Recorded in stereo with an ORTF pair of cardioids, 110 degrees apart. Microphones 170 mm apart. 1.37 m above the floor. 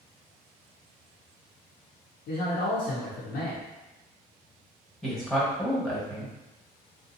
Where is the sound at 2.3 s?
65° left, 0.8 m.